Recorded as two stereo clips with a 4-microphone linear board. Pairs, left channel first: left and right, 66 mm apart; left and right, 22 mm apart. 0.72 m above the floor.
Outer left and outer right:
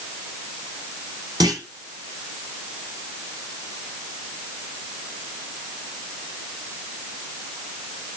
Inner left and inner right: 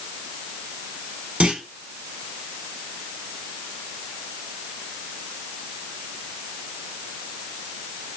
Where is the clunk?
80° right, 2.5 m.